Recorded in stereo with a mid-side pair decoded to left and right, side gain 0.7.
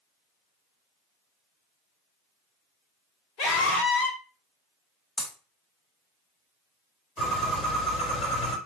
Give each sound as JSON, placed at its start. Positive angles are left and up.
{"t": 3.4, "sound": "a scream", "azimuth_deg": 60, "distance_m": 2.0}
{"t": 5.2, "sound": "breaking glass", "azimuth_deg": 20, "distance_m": 2.5}
{"t": 7.2, "sound": "a bird", "azimuth_deg": 35, "distance_m": 3.0}